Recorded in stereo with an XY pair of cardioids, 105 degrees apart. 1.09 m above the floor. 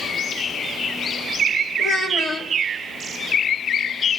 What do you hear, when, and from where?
1.8 s a child speaking: 60° left, 1.7 m